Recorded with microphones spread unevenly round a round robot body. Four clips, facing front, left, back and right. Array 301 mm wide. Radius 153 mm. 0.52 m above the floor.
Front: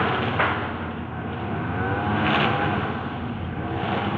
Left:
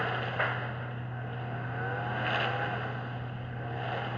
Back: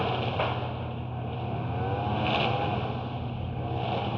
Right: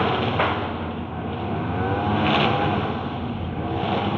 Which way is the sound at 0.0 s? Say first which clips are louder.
Right 11 dB, front 6 dB; 50° right.